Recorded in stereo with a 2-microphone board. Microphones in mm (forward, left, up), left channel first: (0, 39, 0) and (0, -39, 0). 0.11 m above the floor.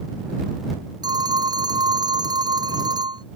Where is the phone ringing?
60° right (ahead or behind).